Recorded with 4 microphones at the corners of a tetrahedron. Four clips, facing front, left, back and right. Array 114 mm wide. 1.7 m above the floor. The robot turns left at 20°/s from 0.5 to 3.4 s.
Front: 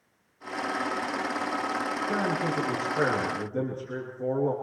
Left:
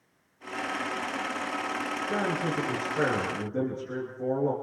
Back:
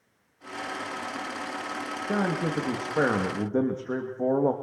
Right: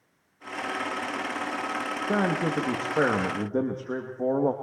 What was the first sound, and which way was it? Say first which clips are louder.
A man speaking: right 4 dB, back 3 dB; 115° right.